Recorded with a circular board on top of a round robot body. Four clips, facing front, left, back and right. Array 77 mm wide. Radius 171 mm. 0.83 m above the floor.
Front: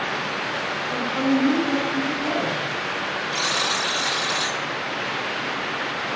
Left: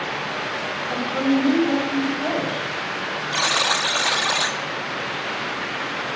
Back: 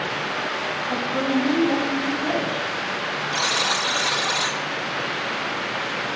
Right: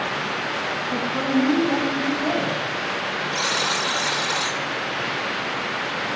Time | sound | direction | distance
0.9 | a woman speaking | 100° left | 6.5 m
3.3 | a buzzer | 100° left | 1.5 m